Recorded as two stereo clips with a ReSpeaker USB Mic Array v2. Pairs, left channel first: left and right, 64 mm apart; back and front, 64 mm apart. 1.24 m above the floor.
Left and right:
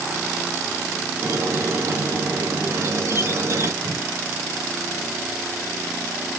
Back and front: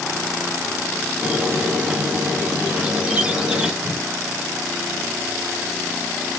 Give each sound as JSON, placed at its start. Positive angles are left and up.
{"t": 1.2, "sound": "a squeak", "azimuth_deg": -70, "distance_m": 0.8}
{"t": 3.8, "sound": "a whoosh", "azimuth_deg": -115, "distance_m": 1.1}